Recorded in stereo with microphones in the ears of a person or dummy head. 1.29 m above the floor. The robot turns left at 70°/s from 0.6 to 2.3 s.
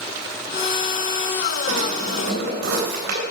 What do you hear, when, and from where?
1.7 s a drawer: 70° right, 3.5 m; by 3.2 s 115° right, 3.5 m